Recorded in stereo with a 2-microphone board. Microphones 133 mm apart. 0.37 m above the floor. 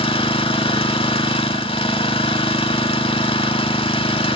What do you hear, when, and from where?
0.0 s an engine running: 45° left (ahead or behind), 0.8 m